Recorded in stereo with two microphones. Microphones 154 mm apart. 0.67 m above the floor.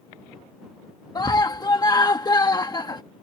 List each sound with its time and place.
1.1 s a scream: 25° left (ahead or behind)